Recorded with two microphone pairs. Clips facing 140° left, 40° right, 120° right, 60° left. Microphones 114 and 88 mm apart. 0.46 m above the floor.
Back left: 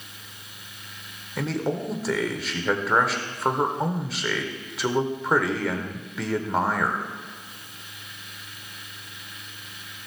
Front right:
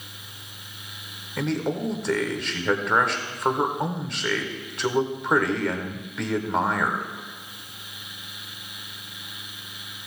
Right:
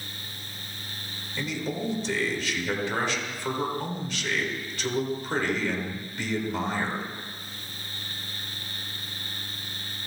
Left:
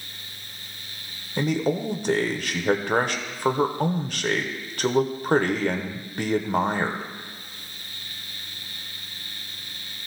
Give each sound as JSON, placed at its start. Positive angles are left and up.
{"t": 1.4, "sound": "a man speaking", "azimuth_deg": 55, "distance_m": 1.1}